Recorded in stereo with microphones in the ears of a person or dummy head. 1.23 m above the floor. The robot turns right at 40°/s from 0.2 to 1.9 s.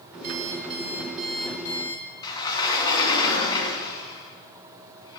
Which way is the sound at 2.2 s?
25° left (ahead or behind).